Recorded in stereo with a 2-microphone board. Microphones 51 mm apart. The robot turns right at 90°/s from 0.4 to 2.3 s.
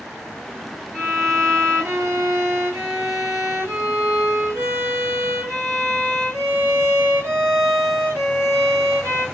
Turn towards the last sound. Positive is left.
turn(degrees=-85)